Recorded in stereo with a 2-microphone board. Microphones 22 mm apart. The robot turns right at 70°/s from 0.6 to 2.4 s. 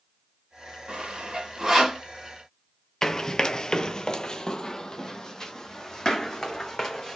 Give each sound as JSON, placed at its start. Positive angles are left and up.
{"t": 0.9, "sound": "sawing", "side_deg": -65, "distance_m": 2.5}
{"t": 3.0, "sound": "running footsteps", "side_deg": 25, "distance_m": 0.7}